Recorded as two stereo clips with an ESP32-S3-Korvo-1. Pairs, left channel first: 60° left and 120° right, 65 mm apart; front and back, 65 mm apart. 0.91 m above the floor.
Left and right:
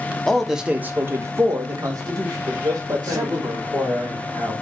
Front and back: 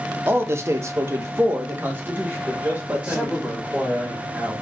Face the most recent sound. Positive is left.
turn(degrees=-120)